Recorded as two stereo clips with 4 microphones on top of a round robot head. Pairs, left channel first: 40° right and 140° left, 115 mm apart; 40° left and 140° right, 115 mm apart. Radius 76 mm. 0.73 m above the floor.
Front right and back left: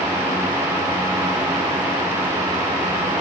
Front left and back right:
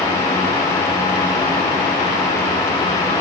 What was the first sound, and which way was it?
Only background noise.